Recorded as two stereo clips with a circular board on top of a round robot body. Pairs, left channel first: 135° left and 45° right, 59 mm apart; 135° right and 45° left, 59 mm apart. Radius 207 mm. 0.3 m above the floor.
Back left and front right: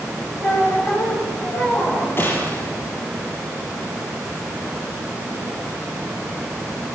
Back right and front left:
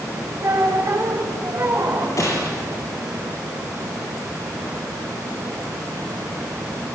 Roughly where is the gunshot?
Behind.